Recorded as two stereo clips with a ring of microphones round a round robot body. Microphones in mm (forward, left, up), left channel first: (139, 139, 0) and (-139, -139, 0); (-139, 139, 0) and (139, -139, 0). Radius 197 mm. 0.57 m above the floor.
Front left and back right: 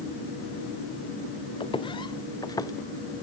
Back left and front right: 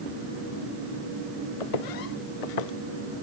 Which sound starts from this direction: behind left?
Footsteps, at 1.6 s.